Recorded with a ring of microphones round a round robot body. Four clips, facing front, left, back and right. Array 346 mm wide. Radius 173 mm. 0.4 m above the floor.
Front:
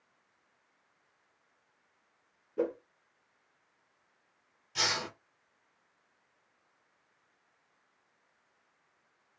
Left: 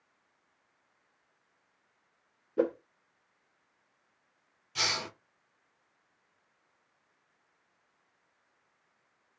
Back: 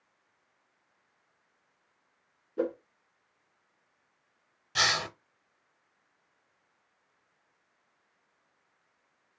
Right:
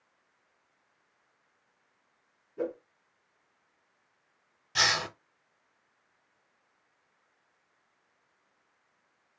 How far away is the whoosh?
About 0.6 m.